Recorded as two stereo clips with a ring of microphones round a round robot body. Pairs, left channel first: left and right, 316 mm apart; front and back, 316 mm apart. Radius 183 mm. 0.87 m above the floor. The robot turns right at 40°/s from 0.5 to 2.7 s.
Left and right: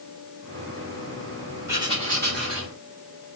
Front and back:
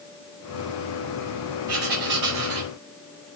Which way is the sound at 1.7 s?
170° right.